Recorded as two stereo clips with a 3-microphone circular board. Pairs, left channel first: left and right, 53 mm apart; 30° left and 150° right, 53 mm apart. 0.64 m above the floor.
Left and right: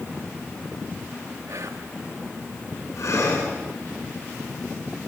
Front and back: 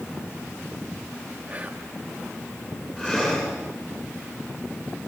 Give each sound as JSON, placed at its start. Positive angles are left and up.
{"t": 1.5, "sound": "whispering", "azimuth_deg": -85, "distance_m": 3.0}
{"t": 3.0, "sound": "breathing", "azimuth_deg": 100, "distance_m": 9.0}